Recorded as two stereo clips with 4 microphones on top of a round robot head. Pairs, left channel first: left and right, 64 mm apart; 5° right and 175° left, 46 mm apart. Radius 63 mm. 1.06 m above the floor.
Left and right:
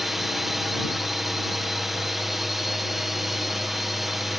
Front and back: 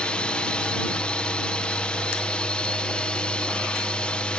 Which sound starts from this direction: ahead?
A drone, at 0.0 s.